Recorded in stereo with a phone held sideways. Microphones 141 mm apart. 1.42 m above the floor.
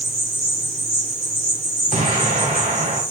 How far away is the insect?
About 3.5 m.